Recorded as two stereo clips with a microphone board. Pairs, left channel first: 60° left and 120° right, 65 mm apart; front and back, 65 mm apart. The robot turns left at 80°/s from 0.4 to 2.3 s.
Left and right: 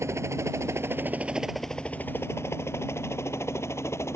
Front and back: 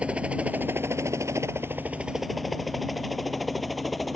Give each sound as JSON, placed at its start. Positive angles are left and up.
{"t": 0.0, "sound": "a helicopter", "azimuth_deg": -115}